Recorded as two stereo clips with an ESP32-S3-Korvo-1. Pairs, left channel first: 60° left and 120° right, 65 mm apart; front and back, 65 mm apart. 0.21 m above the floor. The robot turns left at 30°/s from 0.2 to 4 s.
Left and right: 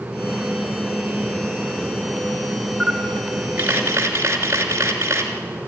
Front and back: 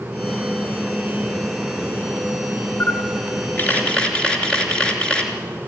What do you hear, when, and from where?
2.8 s a camera shutter: 40° right, 2.5 m; by 5.3 s 75° right, 2.5 m